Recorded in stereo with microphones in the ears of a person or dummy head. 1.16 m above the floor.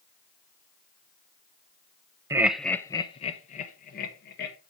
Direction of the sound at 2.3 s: 15° right (ahead or behind).